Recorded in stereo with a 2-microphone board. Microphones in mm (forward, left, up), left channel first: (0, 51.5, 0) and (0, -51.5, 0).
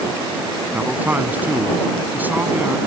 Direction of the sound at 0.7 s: 20° right (ahead or behind).